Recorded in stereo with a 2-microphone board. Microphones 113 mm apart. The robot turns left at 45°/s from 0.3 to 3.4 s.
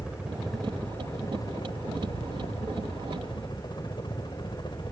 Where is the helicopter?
170° right; by 4.9 s 50° left.